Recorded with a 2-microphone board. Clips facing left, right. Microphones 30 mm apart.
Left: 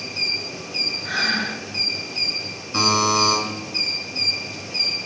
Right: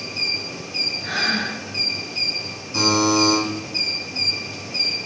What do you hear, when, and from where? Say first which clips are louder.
1.0 s breathing: even; 50° right (ahead or behind), 1.8 m
2.7 s a buzzer: right 1 dB; 45° left (ahead or behind), 1.0 m